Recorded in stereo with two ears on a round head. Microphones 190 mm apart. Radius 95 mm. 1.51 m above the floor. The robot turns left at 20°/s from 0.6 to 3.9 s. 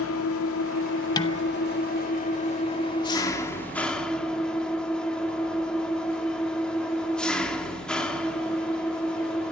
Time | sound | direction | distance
0.0 | an engine running | 70° left | 2.5 m
1.2 | dishes clattering | 20° left (ahead or behind) | 1.1 m